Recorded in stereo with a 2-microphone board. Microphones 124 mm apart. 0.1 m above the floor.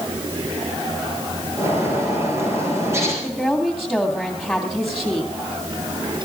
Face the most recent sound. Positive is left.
turn(degrees=0)  # may be behind; listen again after turning